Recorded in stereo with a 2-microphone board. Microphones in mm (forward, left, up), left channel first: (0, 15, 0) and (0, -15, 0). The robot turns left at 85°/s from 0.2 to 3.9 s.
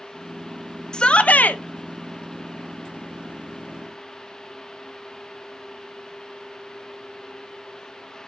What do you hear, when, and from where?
0.9 s a shout: 150° left, 0.9 m; by 1.6 s 95° left, 0.9 m